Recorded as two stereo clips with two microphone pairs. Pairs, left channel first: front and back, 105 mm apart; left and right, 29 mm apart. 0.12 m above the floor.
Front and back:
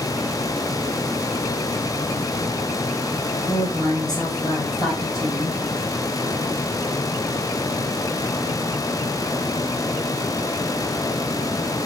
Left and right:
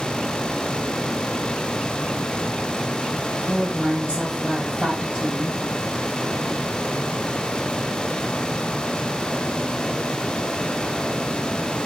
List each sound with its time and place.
3.5 s a woman speaking: 35° left, 1.9 m